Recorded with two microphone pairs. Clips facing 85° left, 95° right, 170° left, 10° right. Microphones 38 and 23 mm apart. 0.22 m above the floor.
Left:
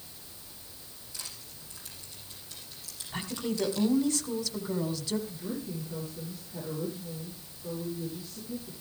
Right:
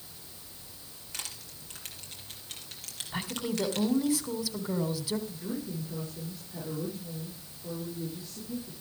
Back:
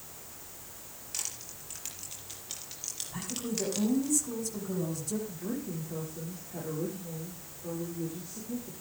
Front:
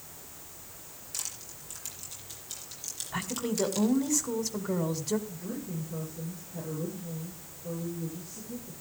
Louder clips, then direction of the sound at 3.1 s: Even, front 5 dB; 20° right.